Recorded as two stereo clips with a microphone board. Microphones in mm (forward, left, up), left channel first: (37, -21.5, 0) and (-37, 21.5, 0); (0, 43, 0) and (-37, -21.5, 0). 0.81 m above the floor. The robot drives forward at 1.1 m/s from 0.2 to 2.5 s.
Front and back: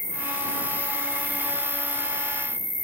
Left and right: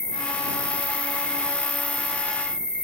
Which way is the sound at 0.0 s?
10° left.